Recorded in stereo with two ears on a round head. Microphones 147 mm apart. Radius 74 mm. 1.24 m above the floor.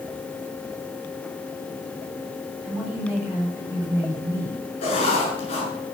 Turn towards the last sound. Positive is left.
turn(degrees=40)  # may be behind; listen again after turning